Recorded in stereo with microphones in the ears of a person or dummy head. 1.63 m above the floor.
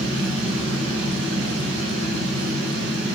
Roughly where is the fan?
Right.